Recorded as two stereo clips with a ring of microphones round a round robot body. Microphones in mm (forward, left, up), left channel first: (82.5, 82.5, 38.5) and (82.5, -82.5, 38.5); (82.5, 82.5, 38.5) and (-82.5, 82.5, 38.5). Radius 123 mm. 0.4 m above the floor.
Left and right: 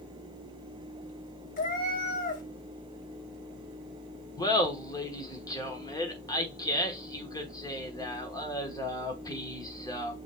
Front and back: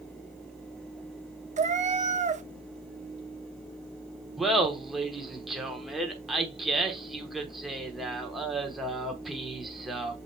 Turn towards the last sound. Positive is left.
turn(degrees=95)